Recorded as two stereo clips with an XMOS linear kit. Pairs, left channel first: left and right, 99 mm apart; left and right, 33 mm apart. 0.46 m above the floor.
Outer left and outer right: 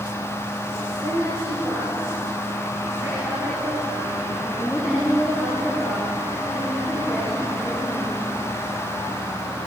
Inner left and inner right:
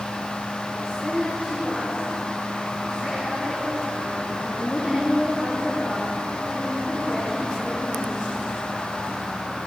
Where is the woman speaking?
40° right (ahead or behind), 7.5 m; by 8.2 s 10° left (ahead or behind), 7.5 m.